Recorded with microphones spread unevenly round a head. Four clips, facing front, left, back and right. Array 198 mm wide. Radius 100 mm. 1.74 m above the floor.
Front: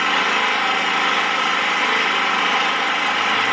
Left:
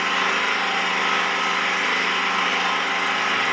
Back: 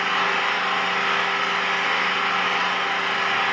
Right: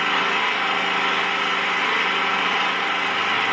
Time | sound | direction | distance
0.0 | an engine running | 5° left | 3 m